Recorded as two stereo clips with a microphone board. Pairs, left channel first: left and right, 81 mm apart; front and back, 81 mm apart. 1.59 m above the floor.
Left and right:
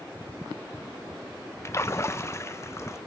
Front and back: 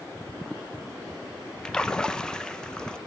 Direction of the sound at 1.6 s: 75° left.